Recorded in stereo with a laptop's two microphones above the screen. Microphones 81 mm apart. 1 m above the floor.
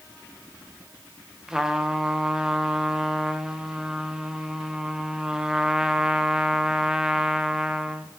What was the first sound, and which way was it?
A trumpet, 10° right (ahead or behind).